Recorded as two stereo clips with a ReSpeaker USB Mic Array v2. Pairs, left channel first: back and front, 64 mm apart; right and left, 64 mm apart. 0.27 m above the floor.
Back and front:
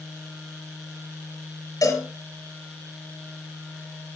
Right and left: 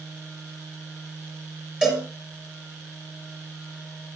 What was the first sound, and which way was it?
A cowbell, 165° left.